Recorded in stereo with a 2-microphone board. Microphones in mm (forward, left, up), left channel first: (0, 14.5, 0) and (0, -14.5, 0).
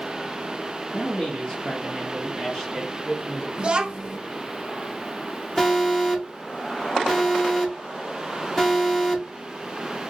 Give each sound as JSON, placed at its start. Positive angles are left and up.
{"t": 0.9, "sound": "a man speaking", "side_deg": 60, "distance_m": 1.2}
{"t": 3.6, "sound": "a child speaking", "side_deg": -35, "distance_m": 0.6}
{"t": 5.6, "sound": "an alarm", "side_deg": 10, "distance_m": 1.3}